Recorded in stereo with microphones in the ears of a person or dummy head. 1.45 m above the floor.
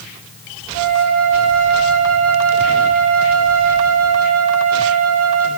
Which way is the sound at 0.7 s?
75° right (ahead or behind).